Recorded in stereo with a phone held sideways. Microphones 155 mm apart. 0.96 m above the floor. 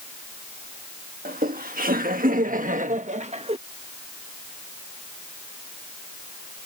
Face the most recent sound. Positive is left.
turn(degrees=-40)  # may be behind; listen again after turning